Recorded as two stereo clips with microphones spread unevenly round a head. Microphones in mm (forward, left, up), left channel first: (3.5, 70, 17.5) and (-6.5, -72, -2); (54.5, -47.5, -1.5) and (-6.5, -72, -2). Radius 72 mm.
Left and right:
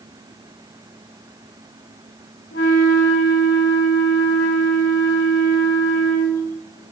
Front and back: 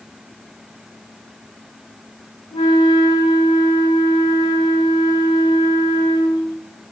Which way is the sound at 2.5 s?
60° left.